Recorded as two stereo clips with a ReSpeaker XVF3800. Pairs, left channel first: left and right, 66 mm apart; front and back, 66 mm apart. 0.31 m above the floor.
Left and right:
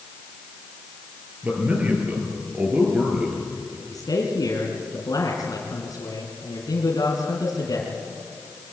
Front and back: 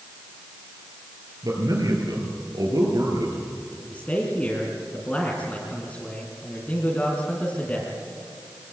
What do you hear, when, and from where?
1.4 s a man speaking: 155° right, 6.5 m; by 3.7 s 165° right, 5 m
3.8 s a man speaking: 70° left, 3 m